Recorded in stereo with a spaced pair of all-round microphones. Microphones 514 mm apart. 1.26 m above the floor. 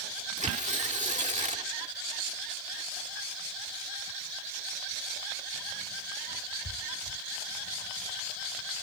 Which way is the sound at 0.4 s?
15° right (ahead or behind).